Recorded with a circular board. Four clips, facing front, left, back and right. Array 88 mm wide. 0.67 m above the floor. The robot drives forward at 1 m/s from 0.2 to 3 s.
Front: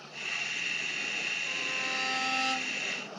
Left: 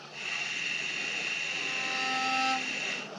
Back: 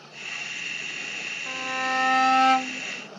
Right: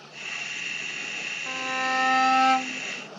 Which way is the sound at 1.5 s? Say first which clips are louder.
Right 13 dB, back 12 dB; 120° right.